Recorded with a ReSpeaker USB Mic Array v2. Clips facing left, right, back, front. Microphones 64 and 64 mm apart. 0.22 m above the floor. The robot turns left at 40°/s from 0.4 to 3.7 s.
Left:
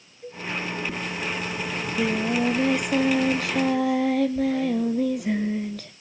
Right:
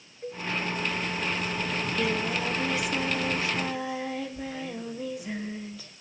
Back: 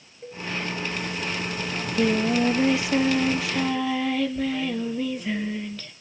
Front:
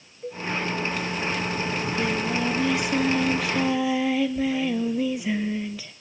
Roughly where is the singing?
Behind.